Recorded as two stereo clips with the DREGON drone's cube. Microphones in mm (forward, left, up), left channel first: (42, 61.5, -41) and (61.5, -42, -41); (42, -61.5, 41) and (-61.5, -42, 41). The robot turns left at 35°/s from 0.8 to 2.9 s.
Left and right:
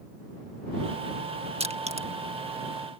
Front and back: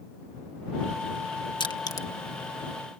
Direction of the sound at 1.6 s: 55° right.